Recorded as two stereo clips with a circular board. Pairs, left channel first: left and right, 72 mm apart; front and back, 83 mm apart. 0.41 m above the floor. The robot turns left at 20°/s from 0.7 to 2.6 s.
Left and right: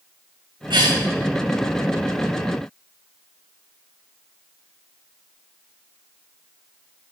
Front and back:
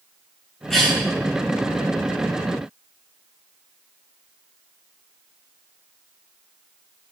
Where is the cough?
85° right, 5.5 m; by 1.0 s 95° right, 5.5 m.